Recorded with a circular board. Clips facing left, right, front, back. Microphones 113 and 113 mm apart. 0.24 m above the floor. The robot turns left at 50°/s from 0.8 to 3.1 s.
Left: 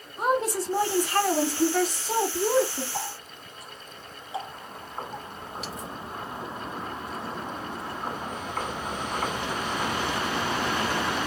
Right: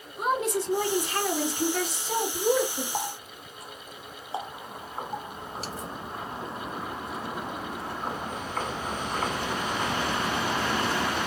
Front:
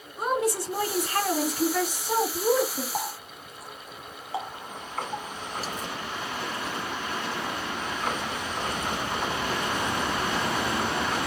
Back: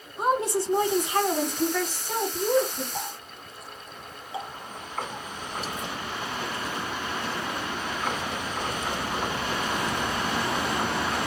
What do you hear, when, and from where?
0.2 s a woman speaking: 125° left, 2 m; by 2.8 s 25° left, 2 m
2.9 s a running tap: 35° right, 1.5 m; by 5.9 s 45° right, 1.5 m